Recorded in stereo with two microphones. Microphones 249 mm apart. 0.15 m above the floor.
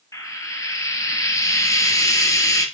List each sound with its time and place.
0.1 s frying: 15° left (ahead or behind), 1.3 m